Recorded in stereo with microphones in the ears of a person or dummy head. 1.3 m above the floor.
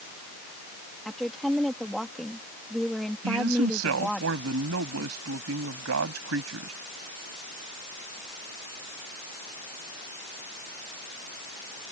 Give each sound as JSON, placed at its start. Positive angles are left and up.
{"t": 1.1, "sound": "a woman speaking", "side_deg": -5}
{"t": 3.2, "sound": "a man speaking", "side_deg": -85}